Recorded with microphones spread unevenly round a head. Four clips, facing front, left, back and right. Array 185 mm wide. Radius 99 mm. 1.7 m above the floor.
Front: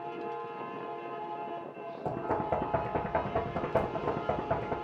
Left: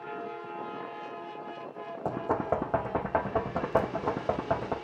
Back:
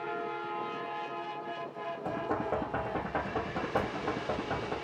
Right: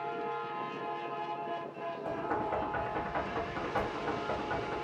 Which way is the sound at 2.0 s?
75° left.